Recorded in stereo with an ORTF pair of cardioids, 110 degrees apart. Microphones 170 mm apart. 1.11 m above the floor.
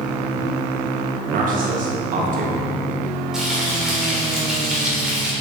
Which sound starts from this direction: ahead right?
A man speaking, at 1.3 s.